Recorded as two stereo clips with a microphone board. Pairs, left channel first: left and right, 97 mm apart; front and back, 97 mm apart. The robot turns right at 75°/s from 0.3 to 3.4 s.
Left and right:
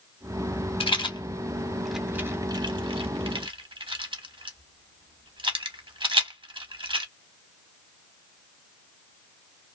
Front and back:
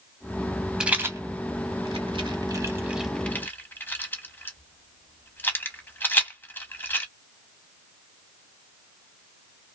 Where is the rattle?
100° left, 0.7 m; by 7.0 s 65° right, 0.7 m.